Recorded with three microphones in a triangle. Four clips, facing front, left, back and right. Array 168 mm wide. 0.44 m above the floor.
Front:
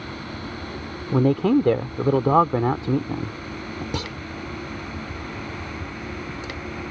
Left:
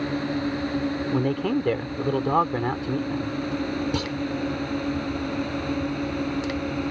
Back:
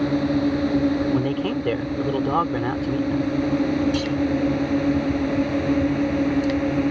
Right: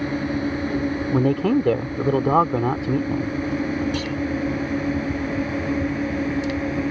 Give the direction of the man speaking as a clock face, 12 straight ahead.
1 o'clock.